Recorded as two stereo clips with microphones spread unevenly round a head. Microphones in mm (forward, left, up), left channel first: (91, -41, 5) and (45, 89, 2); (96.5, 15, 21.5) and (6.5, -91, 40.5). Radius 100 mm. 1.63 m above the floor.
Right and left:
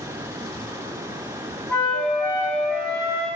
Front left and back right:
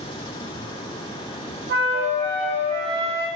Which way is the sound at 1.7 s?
155° right.